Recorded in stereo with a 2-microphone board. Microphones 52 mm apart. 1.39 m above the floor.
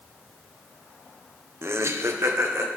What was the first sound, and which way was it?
Laughter, 55° right (ahead or behind).